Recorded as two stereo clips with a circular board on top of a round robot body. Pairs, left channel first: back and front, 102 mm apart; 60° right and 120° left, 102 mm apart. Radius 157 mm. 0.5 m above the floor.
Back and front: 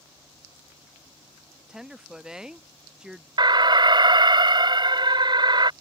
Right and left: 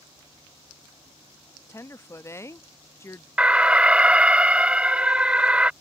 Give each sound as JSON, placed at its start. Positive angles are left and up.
{"t": 1.7, "sound": "a woman speaking", "azimuth_deg": -75}
{"t": 3.4, "sound": "an alarm", "azimuth_deg": 40}